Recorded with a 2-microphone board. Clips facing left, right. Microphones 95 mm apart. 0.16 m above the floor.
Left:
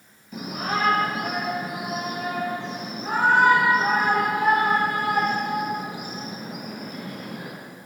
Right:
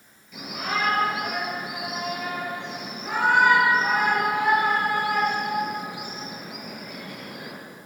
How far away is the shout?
About 3 m.